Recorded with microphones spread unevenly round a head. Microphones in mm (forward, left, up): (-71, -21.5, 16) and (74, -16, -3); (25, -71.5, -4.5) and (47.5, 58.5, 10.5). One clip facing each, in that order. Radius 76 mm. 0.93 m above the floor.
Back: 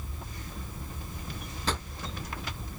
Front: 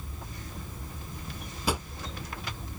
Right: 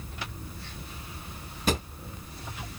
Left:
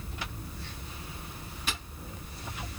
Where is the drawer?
80° right.